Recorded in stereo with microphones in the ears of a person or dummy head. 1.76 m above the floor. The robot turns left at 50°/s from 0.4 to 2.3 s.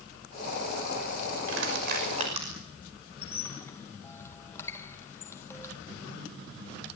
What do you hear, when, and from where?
1.5 s crushing: 70° right (ahead or behind), 6 m; by 2.5 s 30° right (ahead or behind), 6 m
3.2 s a squeak: 10° left (ahead or behind), 1.4 m